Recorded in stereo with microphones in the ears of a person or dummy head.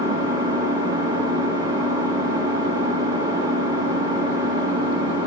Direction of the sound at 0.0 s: 25° right (ahead or behind).